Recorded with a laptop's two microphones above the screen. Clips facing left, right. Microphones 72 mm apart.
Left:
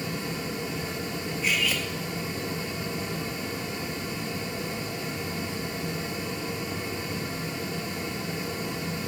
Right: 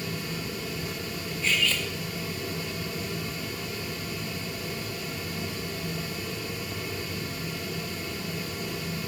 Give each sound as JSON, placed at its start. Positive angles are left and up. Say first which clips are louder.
{"t": 0.0, "sound": "a fan", "louder": "left 2 dB", "side_deg": 30, "distance_m": 0.7}
{"t": 1.4, "sound": "cutlery clinking", "louder": "right 1 dB", "side_deg": 10, "distance_m": 0.5}